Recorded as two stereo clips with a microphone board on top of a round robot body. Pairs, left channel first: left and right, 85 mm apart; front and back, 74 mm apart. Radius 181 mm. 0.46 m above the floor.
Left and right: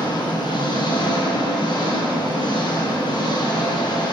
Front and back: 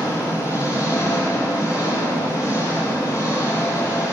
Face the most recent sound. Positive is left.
turn(degrees=50)